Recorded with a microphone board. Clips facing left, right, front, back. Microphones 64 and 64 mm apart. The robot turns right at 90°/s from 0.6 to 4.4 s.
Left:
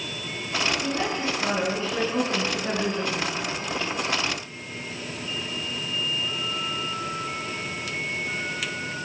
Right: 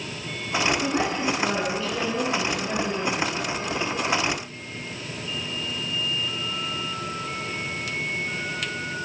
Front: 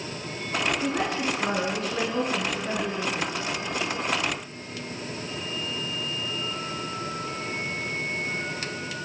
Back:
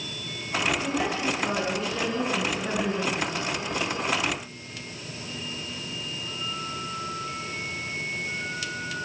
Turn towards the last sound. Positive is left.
turn(degrees=-95)